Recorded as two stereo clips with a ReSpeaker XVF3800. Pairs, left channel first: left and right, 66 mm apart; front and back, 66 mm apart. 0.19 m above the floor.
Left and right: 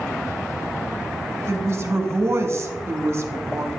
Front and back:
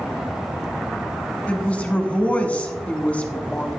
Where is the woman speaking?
65° right, 1.4 m.